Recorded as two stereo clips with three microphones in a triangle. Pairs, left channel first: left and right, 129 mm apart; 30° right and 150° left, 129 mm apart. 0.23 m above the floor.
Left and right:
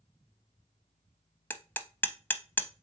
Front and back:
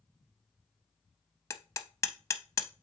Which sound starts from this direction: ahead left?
Hammering, at 1.5 s.